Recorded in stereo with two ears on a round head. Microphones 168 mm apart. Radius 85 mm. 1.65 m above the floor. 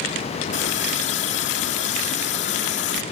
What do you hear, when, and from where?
0.5 s a running tap: 70° left (ahead or behind)